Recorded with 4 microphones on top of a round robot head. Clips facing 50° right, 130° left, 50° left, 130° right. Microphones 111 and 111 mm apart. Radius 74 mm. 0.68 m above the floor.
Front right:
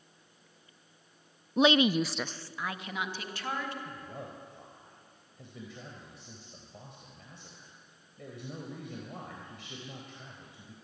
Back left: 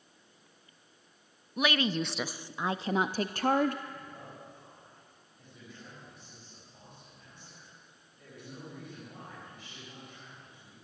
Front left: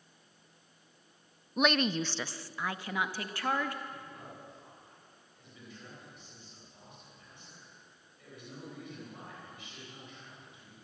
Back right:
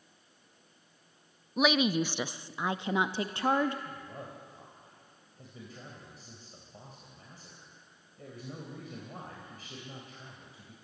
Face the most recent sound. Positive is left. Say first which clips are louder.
# front right 2 dB, back right 3 dB
turn(degrees=-75)